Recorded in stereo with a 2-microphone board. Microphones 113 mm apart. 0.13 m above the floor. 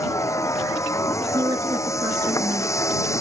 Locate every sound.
0.0 s a vehicle: 25° left (ahead or behind)
1.3 s a woman speaking: 35° right (ahead or behind)